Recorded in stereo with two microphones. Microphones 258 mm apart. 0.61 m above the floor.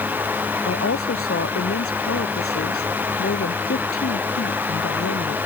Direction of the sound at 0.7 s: 65° left (ahead or behind).